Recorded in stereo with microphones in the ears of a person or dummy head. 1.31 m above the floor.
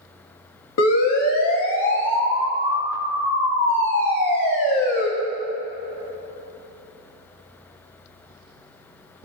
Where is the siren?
80° left, 3 m; by 5.1 s 65° left (ahead or behind), 8.5 m.